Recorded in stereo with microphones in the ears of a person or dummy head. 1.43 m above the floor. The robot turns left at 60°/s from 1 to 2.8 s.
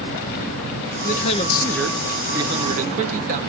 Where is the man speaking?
50° left, 0.7 m; by 3.4 s 55° right, 0.7 m.